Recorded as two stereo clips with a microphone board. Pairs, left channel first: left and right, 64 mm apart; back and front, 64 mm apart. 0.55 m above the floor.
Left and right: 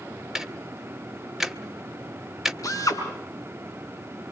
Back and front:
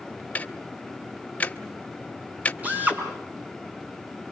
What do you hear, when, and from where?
0.3 s ticking: 165° right, 1.0 m
2.6 s a drill: 65° left, 5.5 m